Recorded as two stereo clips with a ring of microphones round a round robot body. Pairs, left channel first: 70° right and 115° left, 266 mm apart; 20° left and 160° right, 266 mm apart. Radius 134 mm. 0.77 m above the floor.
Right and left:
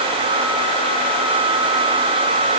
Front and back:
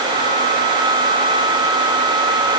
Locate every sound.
Only background noise.